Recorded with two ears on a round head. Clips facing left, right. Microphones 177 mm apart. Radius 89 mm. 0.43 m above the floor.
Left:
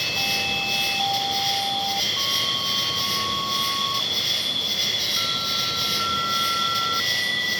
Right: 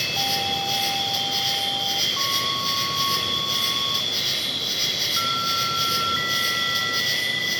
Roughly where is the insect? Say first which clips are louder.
Right 3 dB; centre.